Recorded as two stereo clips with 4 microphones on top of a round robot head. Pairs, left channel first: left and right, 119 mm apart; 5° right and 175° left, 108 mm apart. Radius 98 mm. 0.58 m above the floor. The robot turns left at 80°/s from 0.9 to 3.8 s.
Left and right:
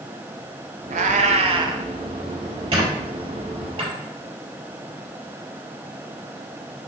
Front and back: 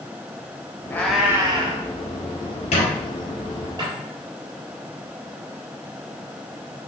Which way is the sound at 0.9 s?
80° right.